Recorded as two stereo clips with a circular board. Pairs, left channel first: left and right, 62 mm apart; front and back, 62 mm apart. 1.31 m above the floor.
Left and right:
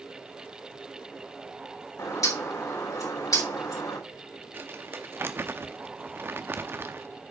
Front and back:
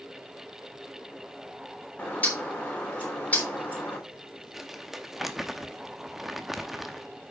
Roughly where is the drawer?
No drawer in this recording.